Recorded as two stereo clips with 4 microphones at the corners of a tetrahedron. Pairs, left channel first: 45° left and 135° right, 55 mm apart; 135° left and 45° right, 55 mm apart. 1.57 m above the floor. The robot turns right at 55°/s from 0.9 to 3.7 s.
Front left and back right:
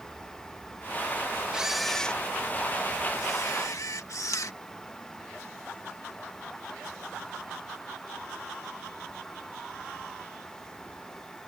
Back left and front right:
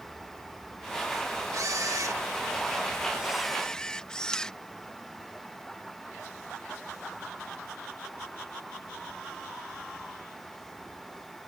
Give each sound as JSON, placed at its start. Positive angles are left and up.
{"t": 1.5, "sound": "a camera shutter", "azimuth_deg": -60}